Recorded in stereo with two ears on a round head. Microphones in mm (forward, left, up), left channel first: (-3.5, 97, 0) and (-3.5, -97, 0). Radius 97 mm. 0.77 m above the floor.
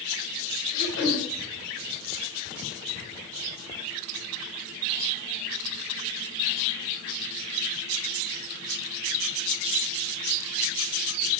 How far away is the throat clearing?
About 4 m.